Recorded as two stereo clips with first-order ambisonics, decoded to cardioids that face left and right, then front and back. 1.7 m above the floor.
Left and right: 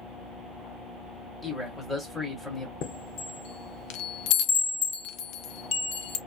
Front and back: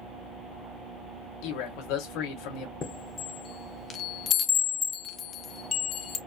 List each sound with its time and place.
1.4 s a man speaking: 5° left, 2 m
2.8 s a chime: 60° left, 0.8 m